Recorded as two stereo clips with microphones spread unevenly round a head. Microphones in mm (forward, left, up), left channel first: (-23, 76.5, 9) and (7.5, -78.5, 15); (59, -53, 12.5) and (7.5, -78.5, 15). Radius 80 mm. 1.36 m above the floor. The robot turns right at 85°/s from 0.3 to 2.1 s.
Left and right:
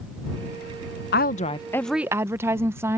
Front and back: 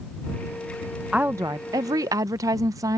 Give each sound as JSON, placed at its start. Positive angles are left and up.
{"t": 1.1, "sound": "a woman speaking", "azimuth_deg": 125}